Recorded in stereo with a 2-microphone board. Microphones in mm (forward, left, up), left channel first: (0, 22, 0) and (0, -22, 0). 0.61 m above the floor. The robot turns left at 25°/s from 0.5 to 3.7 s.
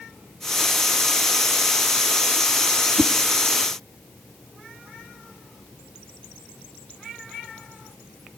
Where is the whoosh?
55° right (ahead or behind), 0.5 m; by 3.1 s 50° right (ahead or behind), 0.5 m.